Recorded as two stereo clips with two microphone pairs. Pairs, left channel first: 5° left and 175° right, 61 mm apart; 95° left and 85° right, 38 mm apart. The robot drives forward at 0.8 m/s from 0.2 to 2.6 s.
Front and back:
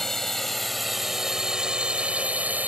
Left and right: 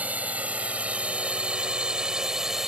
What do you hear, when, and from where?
0.0 s a drone: 75° right; by 2.7 s 155° right